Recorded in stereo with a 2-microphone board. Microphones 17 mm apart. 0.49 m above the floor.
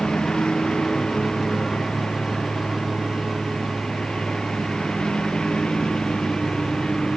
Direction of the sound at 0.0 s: 55° left (ahead or behind).